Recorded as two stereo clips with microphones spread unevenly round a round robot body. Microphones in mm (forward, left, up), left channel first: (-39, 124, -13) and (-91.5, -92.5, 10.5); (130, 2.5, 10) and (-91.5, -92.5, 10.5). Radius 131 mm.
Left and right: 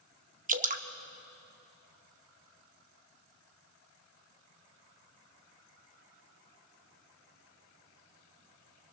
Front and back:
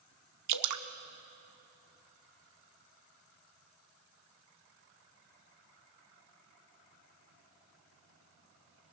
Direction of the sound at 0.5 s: 155° right.